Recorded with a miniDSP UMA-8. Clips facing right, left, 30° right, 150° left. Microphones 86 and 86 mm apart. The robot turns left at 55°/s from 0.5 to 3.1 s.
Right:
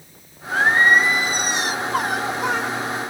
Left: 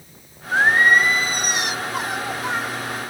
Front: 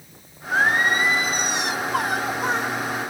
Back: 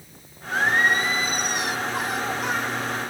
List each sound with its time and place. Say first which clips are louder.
0.5 s singing: even, front 1 dB; 25° left, 0.8 m; by 3.1 s 120° right, 0.8 m